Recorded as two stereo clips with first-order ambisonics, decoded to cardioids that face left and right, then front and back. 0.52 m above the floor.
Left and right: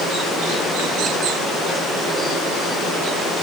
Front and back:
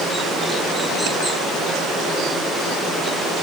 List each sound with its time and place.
Only background noise.